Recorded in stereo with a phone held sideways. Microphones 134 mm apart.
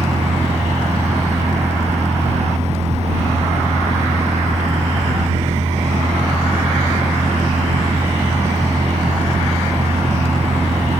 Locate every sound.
0.0 s a machine running: 60° right (ahead or behind)